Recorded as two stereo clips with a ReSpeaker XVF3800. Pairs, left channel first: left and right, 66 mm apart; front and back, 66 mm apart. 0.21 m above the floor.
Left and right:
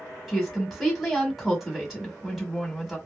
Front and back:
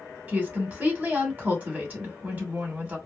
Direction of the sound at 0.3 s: 170° right.